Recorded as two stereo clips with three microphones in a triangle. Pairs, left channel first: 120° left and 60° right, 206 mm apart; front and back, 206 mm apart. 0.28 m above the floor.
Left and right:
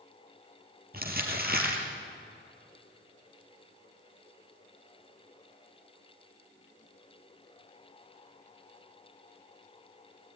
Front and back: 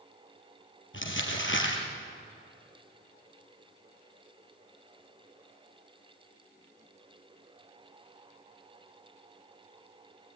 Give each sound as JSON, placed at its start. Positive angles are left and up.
{"t": 0.9, "sound": "crumpling", "azimuth_deg": -20, "distance_m": 4.0}